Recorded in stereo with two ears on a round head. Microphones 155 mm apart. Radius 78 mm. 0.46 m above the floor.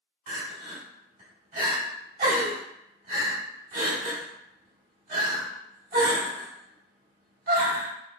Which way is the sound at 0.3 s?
50° right (ahead or behind).